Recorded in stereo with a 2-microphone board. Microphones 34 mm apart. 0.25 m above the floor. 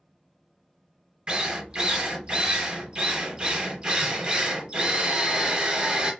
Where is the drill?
30° right (ahead or behind), 0.7 m.